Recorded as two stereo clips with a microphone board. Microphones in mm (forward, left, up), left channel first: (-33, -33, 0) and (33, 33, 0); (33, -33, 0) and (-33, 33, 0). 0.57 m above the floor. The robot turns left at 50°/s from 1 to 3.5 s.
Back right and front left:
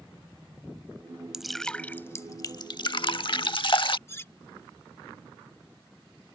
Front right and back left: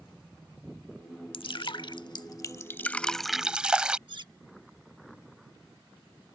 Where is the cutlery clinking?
165° left.